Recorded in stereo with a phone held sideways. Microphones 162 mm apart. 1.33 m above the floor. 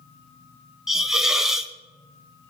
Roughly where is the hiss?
Centre.